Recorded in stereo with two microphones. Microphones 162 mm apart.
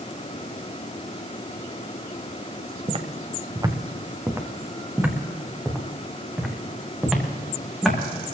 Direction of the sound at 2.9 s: 40° right (ahead or behind).